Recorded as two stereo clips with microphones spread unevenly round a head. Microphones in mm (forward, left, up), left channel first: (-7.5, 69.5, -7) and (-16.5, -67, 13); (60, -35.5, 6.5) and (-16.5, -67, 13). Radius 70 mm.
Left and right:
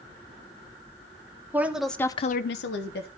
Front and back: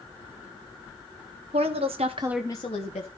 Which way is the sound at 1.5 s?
170° right.